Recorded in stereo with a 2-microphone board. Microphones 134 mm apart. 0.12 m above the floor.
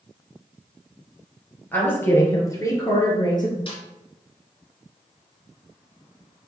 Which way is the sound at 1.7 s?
15° left (ahead or behind).